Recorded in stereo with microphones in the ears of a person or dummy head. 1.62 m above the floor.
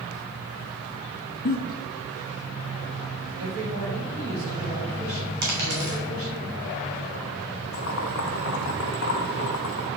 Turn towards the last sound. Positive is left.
turn(degrees=75)  # may be behind; listen again after turning